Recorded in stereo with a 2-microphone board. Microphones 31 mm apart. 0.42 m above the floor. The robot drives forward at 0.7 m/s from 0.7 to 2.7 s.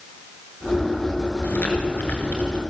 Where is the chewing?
70° left (ahead or behind), 5.5 m; by 2.6 s 65° left (ahead or behind), 6 m.